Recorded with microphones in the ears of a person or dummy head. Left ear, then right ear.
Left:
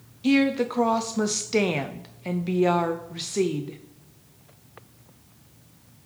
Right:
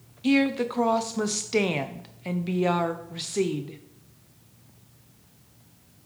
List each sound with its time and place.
0.2 s a woman speaking: centre (ahead or behind), 0.5 m